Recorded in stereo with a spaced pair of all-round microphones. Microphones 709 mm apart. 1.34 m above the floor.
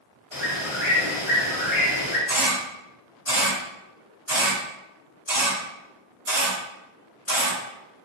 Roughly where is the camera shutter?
Left.